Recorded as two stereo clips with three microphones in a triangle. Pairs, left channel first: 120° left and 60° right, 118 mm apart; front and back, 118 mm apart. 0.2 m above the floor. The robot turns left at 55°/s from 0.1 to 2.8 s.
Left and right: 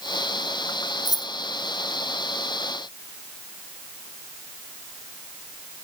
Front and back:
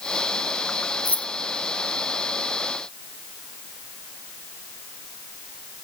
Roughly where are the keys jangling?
Behind left.